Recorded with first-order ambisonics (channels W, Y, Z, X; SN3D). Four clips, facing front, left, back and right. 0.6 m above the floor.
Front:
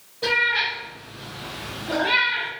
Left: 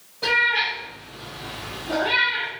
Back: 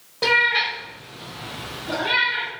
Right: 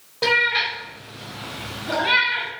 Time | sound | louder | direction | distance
0.2 | a cat meowing | right 1 dB, back 3 dB | 140° right | 0.9 m